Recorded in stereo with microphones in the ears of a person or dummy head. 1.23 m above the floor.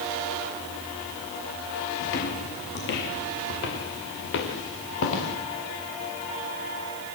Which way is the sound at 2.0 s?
55° left (ahead or behind).